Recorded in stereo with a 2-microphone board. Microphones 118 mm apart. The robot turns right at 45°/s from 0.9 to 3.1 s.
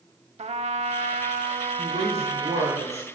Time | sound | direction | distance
0.4 | a trumpet | 105° right | 0.5 m
1.8 | a woman speaking | 120° right | 4.5 m